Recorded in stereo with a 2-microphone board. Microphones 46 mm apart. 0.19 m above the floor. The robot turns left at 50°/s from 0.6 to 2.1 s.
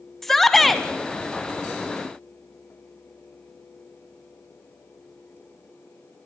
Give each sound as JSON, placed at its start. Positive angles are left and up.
{"t": 0.2, "sound": "a shout", "side_deg": 5, "distance_m": 1.0}